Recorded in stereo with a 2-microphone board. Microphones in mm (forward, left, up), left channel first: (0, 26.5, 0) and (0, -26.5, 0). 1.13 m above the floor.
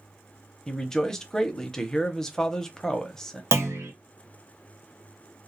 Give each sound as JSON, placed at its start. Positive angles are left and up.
{"t": 0.7, "sound": "a man speaking", "side_deg": 10, "distance_m": 0.6}
{"t": 3.5, "sound": "a clunk", "side_deg": -65, "distance_m": 0.7}